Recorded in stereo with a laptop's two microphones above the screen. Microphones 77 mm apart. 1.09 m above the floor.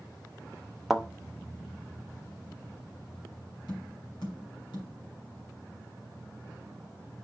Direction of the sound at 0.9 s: 5° right (ahead or behind).